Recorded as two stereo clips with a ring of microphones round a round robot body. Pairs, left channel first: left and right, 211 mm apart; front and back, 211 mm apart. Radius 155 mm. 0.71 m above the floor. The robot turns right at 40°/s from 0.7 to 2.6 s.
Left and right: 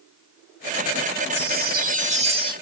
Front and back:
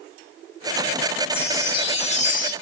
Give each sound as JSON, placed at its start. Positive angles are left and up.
{"t": 1.3, "sound": "a chime", "azimuth_deg": -80, "distance_m": 0.6}